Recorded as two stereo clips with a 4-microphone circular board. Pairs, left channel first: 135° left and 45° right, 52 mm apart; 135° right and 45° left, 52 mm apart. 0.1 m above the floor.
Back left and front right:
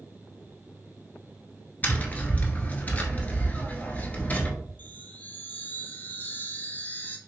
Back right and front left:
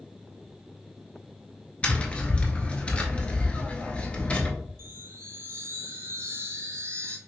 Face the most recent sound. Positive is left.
turn(degrees=75)